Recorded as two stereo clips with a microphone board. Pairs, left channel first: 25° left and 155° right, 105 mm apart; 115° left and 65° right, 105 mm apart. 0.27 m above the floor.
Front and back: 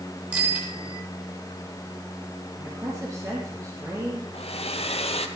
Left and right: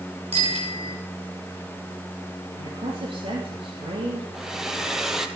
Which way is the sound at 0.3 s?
85° right.